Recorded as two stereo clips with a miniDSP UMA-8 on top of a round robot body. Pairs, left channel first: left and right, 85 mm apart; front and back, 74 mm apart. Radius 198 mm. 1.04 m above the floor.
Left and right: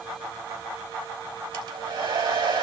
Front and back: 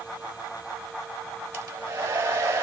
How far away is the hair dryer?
About 4.5 m.